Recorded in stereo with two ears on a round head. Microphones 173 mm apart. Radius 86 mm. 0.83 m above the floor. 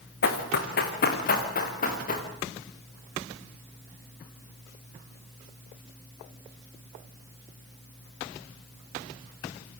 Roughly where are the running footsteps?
Left.